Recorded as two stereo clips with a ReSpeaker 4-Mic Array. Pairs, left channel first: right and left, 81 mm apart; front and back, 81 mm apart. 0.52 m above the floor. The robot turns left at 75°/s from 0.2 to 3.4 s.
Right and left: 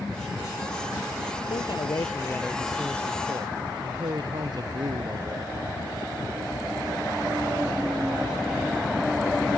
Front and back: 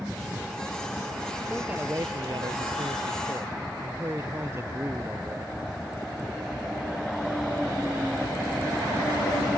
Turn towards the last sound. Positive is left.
turn(degrees=125)